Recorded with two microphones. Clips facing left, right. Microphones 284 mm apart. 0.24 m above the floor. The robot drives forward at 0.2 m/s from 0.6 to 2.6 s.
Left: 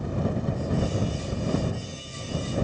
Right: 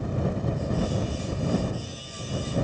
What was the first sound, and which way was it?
Only background noise.